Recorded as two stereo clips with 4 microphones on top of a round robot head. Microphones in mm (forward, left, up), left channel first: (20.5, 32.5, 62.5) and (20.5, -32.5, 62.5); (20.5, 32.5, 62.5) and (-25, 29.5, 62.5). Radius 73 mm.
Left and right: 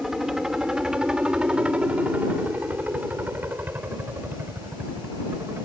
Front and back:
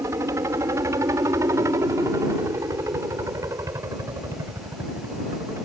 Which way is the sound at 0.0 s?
175° right.